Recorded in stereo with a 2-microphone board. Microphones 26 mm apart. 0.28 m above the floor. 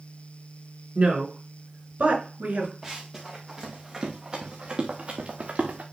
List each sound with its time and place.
0.9 s a woman speaking: 45° right (ahead or behind), 3.5 m; by 2.7 s 65° right (ahead or behind), 4 m
2.8 s running footsteps: 5° right (ahead or behind), 3.5 m; by 5.8 s 55° right (ahead or behind), 2 m